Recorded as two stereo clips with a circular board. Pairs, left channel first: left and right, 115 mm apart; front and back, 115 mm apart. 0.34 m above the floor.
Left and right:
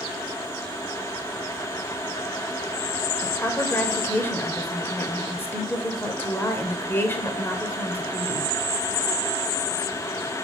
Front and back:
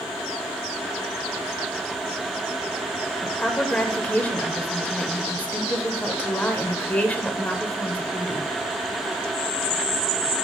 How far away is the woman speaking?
About 0.8 m.